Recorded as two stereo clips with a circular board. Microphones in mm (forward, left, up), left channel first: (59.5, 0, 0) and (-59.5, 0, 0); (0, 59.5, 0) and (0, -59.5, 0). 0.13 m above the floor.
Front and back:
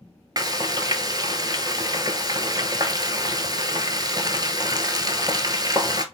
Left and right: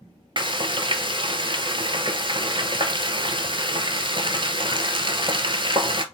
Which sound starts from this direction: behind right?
Frying, at 0.4 s.